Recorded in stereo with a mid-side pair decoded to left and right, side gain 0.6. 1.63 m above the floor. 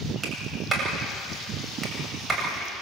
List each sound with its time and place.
0.2 s a clap: 15° right, 8.5 m